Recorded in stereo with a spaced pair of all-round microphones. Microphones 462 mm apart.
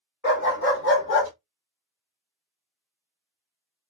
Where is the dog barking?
25° left (ahead or behind), 1.2 m.